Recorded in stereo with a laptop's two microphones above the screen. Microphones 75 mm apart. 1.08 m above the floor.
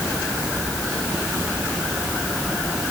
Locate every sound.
Only background noise.